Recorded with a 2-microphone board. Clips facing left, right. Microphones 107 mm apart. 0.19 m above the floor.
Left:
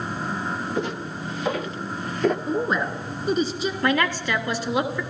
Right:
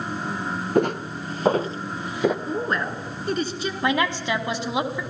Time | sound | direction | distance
0.8 | footsteps | 55° right (ahead or behind) | 1.2 m
2.5 | a woman speaking | 5° left (ahead or behind) | 2 m
3.8 | a woman speaking | 20° right (ahead or behind) | 1.4 m